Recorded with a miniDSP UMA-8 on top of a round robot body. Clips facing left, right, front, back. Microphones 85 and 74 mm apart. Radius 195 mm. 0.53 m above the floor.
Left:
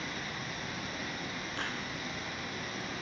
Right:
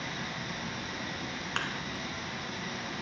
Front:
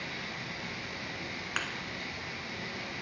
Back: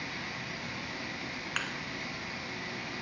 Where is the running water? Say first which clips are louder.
Right 2 dB, even; 105° right, 5 m.